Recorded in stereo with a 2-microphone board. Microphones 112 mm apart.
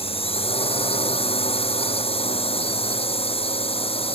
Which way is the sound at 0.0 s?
55° left (ahead or behind).